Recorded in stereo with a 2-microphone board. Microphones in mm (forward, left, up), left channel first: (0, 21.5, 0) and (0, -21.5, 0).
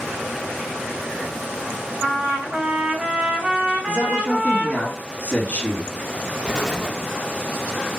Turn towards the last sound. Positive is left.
turn(degrees=20)  # may be behind; listen again after turning